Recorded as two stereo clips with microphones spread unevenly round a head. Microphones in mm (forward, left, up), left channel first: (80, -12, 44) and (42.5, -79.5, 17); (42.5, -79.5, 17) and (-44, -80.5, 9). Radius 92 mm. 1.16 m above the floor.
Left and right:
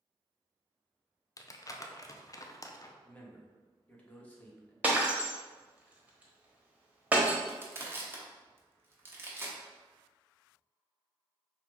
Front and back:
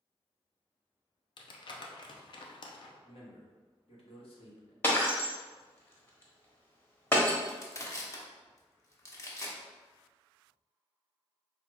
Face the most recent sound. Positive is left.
turn(degrees=-50)